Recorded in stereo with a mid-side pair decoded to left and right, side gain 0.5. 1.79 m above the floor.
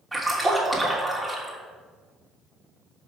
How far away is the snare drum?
I don't hear a snare drum.